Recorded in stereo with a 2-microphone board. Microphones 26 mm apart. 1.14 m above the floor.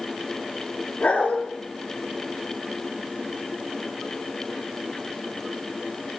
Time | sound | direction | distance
1.0 | a dog barking | 80° left | 4 m